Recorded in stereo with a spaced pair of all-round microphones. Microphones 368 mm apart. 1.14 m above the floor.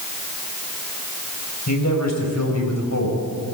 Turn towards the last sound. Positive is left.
turn(degrees=50)  # may be behind; listen again after turning